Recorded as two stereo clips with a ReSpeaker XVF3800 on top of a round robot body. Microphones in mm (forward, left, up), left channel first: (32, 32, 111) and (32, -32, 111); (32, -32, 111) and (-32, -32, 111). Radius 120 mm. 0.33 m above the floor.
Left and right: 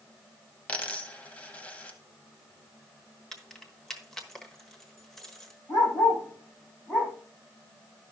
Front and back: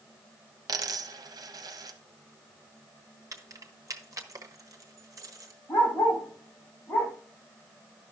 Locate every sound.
0.7 s a dropped coin: 160° left, 0.7 m
3.3 s keys jangling: 170° left, 1.4 m
5.7 s a dog barking: 55° left, 7 m